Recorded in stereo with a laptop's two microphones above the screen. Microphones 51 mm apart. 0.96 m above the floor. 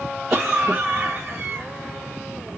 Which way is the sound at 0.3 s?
5° right (ahead or behind).